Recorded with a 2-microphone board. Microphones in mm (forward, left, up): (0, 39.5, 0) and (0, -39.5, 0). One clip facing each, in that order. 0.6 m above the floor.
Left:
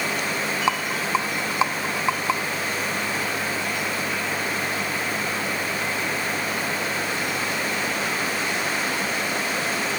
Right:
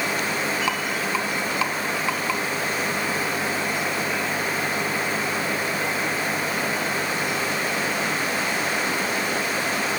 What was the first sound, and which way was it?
A rattle, 25° left (ahead or behind).